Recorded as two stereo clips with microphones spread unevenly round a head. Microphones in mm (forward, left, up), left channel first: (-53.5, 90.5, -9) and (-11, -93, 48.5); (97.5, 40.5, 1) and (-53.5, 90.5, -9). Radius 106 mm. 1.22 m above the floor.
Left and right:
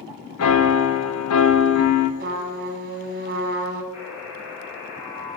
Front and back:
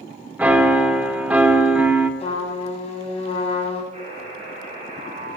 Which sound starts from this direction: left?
A piano, at 0.4 s.